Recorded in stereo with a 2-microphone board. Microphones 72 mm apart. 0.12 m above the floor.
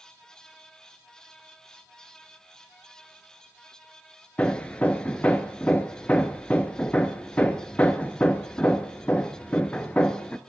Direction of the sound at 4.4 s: 20° left (ahead or behind).